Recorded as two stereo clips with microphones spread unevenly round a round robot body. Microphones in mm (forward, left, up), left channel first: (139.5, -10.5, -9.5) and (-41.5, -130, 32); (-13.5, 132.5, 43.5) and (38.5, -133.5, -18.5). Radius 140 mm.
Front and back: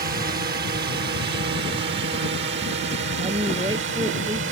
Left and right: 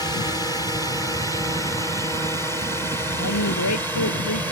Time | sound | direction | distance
0.0 | a drone | 175° right | ?
3.2 | a woman speaking | 135° left | ?